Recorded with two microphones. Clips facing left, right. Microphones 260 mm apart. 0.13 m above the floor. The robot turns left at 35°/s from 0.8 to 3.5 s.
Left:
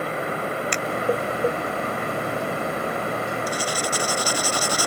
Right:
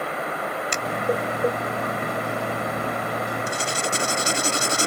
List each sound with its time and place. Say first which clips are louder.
0.7 s a finger snap: left 2 dB; 45° right (ahead or behind)
3.5 s writing: left 1 dB; 25° right (ahead or behind)